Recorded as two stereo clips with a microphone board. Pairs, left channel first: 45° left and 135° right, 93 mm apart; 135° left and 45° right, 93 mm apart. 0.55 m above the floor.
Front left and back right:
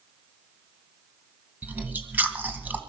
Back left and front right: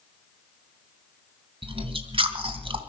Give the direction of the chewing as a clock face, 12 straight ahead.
2 o'clock.